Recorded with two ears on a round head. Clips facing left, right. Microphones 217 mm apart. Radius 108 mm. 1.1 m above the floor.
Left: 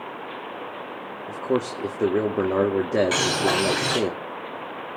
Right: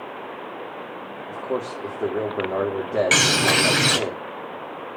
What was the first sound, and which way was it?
A man speaking, 40° left (ahead or behind).